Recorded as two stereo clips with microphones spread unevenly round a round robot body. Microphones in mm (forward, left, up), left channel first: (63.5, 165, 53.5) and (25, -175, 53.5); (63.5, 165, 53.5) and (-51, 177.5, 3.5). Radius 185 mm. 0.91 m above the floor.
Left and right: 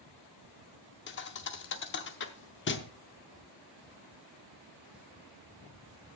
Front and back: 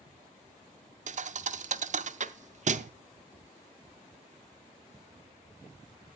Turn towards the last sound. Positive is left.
turn(degrees=135)